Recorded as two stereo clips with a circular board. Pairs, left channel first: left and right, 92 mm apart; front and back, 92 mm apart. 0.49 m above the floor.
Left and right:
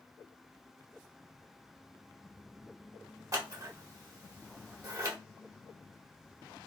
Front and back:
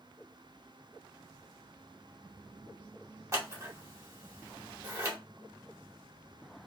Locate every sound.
3.3 s scissors: 130° right, 0.8 m